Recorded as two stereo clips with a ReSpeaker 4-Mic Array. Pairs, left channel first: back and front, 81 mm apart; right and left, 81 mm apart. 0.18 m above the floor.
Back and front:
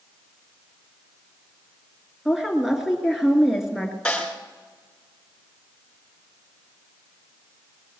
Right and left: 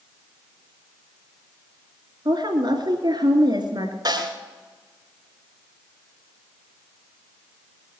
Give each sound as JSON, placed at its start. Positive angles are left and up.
{"t": 2.2, "sound": "a woman speaking", "azimuth_deg": 85, "distance_m": 2.5}
{"t": 4.0, "sound": "a snare drum", "azimuth_deg": 105, "distance_m": 2.5}